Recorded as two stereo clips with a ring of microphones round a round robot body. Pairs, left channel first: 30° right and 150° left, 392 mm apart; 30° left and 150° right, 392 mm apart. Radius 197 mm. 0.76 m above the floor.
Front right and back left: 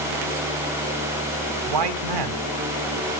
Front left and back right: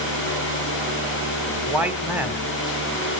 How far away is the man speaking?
About 2.5 m.